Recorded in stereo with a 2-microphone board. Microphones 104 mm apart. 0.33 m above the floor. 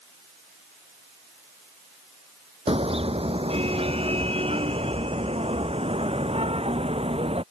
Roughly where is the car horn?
Right.